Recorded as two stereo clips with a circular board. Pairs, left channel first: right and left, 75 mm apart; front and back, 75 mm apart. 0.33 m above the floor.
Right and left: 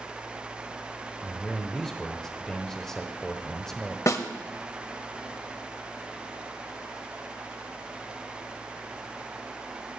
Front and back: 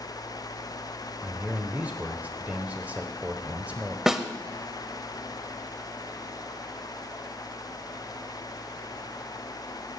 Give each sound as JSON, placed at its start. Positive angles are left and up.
{"t": 1.2, "sound": "a man speaking", "azimuth_deg": -165, "distance_m": 1.0}
{"t": 4.1, "sound": "a snare drum", "azimuth_deg": -100, "distance_m": 0.9}